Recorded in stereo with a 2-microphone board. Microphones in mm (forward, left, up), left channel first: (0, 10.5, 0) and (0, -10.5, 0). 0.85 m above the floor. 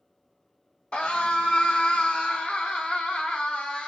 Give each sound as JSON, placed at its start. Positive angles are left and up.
{"t": 0.9, "sound": "a scream", "side_deg": 65, "distance_m": 2.0}